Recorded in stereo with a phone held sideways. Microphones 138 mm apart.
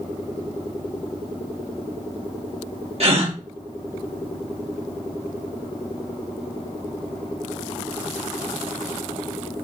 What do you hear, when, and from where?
3.0 s a gasp: 50° right (ahead or behind), 1.2 m